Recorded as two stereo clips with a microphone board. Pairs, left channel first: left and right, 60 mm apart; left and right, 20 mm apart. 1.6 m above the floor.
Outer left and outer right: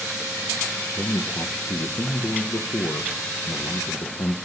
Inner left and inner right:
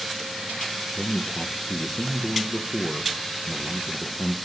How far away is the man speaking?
About 1.2 m.